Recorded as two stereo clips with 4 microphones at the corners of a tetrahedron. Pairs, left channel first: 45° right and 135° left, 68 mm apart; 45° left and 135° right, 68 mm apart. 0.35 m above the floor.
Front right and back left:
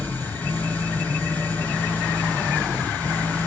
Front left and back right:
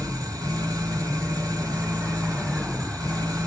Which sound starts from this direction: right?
An engine running, at 0.0 s.